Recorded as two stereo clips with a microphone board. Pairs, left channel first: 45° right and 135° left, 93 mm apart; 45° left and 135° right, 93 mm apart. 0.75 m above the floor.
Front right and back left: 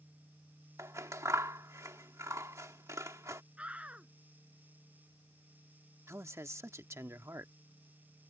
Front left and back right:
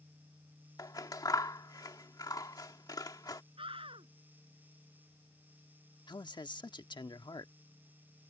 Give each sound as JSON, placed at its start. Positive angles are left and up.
{"t": 0.8, "sound": "scissors", "azimuth_deg": 85}
{"t": 3.6, "sound": "a scream", "azimuth_deg": -150}
{"t": 6.1, "sound": "a man speaking", "azimuth_deg": 75}